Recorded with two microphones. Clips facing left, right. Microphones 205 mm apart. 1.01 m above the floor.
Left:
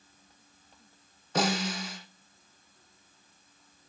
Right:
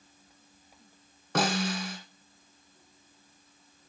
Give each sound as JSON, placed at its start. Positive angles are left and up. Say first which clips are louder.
{"t": 1.4, "sound": "a snare drum", "louder": "right 1 dB", "side_deg": -70, "distance_m": 2.0}